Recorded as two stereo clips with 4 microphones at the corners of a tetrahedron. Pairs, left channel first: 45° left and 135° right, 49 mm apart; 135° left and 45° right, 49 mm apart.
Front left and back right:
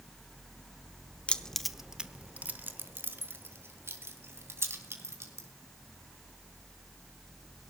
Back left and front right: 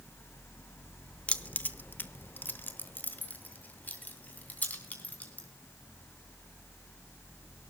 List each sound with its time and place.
1.3 s keys jangling: 95° left, 0.8 m; by 5.5 s 165° right, 3.5 m